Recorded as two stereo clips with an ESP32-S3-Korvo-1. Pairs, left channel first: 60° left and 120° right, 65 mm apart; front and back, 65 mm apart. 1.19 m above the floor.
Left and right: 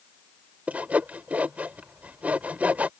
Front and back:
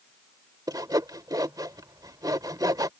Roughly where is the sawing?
Behind.